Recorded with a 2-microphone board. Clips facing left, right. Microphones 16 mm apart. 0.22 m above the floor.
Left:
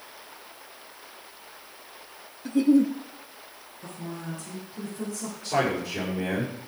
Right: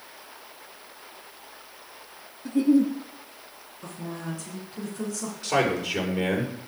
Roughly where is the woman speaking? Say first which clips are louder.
Right 2 dB; right.